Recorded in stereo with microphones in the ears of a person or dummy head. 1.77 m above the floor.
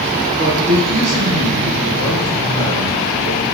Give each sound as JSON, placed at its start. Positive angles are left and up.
{"t": 0.4, "sound": "a man speaking", "side_deg": -50, "distance_m": 1.5}